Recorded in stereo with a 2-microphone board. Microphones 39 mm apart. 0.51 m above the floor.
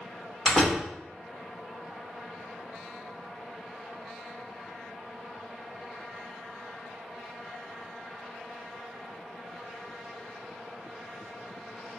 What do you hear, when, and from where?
0.5 s a door slam: 5° left (ahead or behind), 1.9 m